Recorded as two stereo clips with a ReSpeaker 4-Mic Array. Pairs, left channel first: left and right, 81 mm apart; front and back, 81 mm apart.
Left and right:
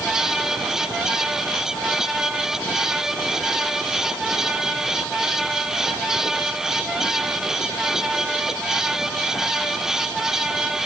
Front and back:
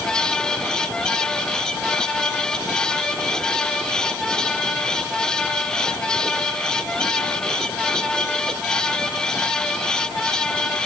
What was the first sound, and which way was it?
Only background noise.